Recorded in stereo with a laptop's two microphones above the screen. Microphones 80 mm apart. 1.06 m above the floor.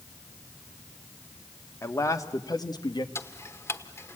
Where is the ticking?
30° left (ahead or behind), 0.9 m.